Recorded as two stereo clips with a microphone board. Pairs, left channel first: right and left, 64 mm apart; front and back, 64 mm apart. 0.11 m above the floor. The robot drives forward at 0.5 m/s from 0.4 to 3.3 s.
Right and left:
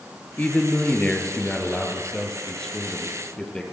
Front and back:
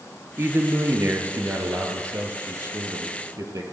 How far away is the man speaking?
About 1.9 m.